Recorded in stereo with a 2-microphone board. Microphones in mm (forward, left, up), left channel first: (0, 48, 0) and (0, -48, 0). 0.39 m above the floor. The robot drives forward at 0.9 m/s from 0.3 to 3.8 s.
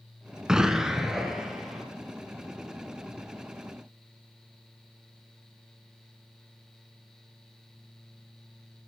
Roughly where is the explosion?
Centre.